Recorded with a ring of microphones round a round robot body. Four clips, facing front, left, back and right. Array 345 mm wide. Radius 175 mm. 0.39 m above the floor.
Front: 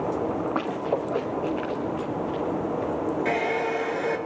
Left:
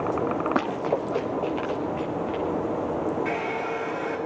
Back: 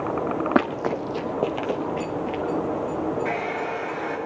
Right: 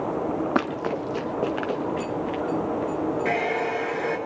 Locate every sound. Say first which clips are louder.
0.6 s running footsteps: even, back 3 dB; 175° right, 1.3 m; by 2.4 s 145° right, 2.5 m
3.2 s a hair dryer: right 3 dB, front 2 dB; 50° right, 4.5 m